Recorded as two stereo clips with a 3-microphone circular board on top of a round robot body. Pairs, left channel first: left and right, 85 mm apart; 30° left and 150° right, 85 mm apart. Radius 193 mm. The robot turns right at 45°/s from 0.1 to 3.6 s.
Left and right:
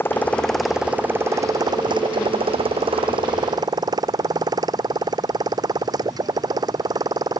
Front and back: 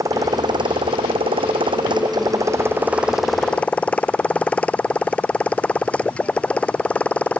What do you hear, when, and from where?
0.0 s a motorcycle: 155° left; by 7.4 s 45° right